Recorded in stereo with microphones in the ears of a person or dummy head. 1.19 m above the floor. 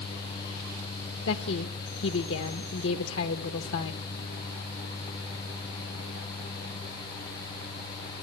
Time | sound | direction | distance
1.3 | a woman speaking | 75° left (ahead or behind) | 1.1 m